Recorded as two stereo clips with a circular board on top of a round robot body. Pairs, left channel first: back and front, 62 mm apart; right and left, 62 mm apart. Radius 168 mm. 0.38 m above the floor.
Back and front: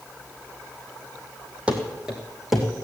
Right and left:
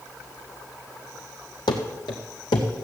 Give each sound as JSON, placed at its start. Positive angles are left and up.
{"t": 1.7, "sound": "running footsteps", "azimuth_deg": -75, "distance_m": 1.4}